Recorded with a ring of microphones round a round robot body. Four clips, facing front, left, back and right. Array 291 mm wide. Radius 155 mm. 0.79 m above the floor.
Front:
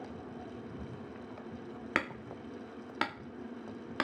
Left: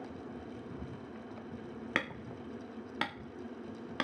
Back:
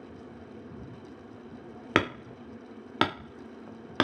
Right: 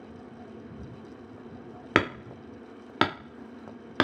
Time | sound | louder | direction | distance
1.9 | hammering | right 13 dB, back 9 dB | 125° right | ?